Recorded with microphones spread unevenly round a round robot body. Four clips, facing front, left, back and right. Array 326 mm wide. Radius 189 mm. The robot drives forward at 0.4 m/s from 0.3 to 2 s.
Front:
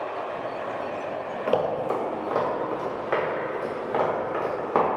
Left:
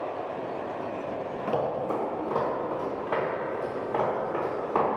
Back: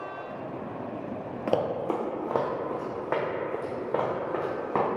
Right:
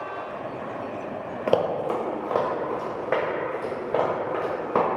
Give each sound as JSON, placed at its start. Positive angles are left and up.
{"t": 1.5, "sound": "running footsteps", "azimuth_deg": -80, "distance_m": 0.6}